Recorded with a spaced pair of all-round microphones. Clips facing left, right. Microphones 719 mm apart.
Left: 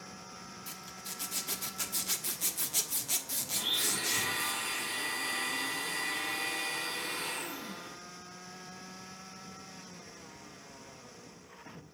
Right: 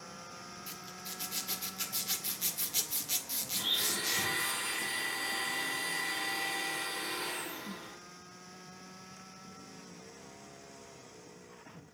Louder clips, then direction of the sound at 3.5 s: Left 1 dB; 40° left (ahead or behind).